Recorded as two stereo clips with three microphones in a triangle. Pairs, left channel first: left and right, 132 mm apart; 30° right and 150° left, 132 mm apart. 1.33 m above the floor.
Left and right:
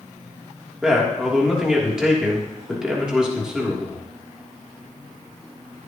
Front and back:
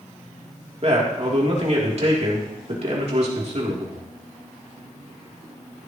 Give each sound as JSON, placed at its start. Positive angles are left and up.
{"t": 0.8, "sound": "a man speaking", "azimuth_deg": -175, "distance_m": 3.0}